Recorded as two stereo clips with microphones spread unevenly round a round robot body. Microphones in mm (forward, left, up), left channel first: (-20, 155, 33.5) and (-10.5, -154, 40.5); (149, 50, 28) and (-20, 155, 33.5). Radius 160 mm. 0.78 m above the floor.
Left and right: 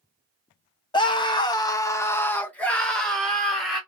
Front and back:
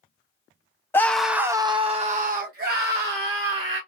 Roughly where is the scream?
Ahead left.